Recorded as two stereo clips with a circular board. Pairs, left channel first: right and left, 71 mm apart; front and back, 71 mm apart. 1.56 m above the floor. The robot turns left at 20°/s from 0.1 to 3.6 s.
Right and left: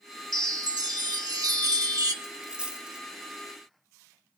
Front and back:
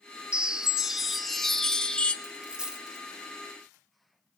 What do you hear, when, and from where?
0.3 s a chime: 105° left, 0.6 m; by 2.1 s 70° left, 0.6 m
2.2 s a dropped coin: 135° left, 0.9 m; by 3.0 s 120° left, 0.9 m